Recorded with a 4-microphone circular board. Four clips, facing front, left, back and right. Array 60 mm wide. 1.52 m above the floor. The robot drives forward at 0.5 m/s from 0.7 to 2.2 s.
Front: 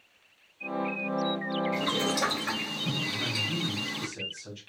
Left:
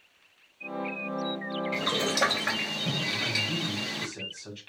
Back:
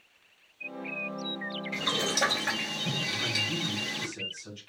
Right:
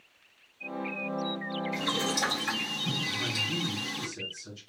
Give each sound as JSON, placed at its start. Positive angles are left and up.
{"t": 1.7, "sound": "boiling", "azimuth_deg": 95, "distance_m": 2.5}
{"t": 3.1, "sound": "a man speaking", "azimuth_deg": 75, "distance_m": 2.5}